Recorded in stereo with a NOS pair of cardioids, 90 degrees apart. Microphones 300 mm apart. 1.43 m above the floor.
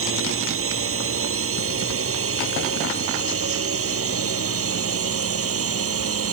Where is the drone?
45° right; by 6.3 s 50° right.